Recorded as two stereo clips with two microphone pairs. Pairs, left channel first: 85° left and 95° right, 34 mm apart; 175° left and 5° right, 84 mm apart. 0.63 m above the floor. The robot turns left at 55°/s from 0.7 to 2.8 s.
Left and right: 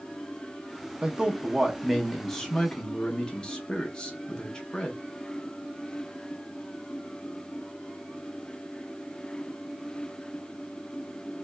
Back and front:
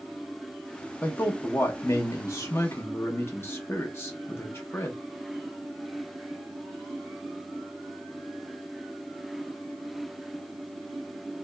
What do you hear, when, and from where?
1.0 s a man speaking: 125° right, 0.6 m; by 5.0 s 140° left, 0.6 m